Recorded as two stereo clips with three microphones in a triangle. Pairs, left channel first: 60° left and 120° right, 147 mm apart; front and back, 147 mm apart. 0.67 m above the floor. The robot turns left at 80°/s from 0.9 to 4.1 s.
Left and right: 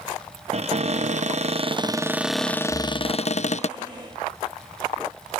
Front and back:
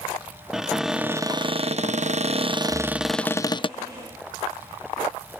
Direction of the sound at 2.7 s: 85° right.